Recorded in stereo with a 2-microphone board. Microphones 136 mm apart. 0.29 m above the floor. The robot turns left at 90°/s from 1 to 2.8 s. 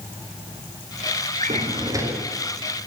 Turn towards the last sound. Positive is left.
turn(degrees=130)